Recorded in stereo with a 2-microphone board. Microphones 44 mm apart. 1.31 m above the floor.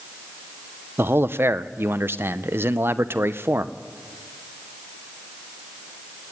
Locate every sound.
1.0 s a man speaking: 65° right (ahead or behind), 0.7 m